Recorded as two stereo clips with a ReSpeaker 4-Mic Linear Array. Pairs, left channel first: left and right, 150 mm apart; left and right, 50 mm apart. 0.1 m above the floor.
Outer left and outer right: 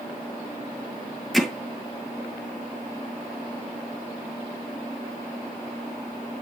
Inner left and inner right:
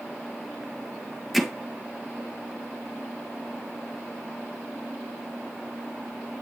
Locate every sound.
1.3 s hammering: centre (ahead or behind), 1.6 m